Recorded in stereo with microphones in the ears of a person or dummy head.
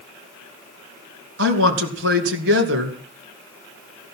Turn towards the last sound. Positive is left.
turn(degrees=-60)  # may be behind; listen again after turning